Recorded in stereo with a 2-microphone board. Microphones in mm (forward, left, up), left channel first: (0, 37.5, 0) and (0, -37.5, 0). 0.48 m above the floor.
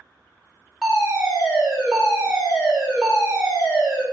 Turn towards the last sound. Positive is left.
turn(degrees=-10)  # may be behind; listen again after turning